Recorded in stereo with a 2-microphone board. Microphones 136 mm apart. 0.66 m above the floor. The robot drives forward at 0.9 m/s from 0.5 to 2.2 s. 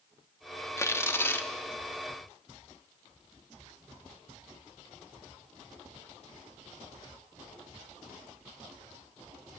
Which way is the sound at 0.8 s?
20° left (ahead or behind).